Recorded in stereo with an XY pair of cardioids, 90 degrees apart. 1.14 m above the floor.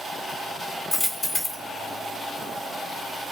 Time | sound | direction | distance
0.9 | a dropped coin | 45° left | 1.7 m